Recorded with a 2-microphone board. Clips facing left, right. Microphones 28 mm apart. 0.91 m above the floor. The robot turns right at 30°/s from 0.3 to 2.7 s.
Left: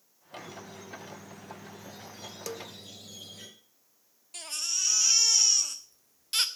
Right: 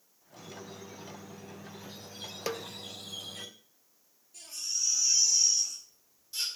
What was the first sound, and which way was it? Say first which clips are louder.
A squeak: left 2 dB; 175° right.